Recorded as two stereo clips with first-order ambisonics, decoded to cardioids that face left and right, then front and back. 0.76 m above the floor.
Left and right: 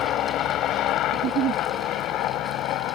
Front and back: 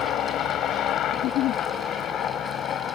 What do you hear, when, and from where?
0.0 s a helicopter: 45° left; by 3.0 s 50° left
1.1 s a giggle: 40° right